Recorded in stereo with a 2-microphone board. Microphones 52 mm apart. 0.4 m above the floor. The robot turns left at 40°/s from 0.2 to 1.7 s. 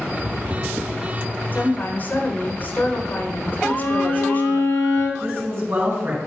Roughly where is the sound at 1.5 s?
Left.